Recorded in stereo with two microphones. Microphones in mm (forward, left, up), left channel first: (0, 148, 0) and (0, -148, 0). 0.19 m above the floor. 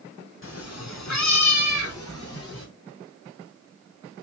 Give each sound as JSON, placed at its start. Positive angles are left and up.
{"t": 0.4, "sound": "a cat meowing", "side_deg": 45, "distance_m": 0.7}